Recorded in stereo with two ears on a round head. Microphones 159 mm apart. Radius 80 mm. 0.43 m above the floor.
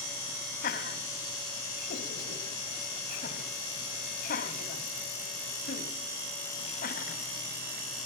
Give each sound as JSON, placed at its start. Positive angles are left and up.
{"t": 0.6, "sound": "laughter", "side_deg": 55, "distance_m": 3.0}